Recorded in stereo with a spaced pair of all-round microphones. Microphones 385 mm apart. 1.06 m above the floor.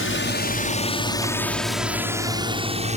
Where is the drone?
35° left (ahead or behind); by 3.0 s 20° right (ahead or behind).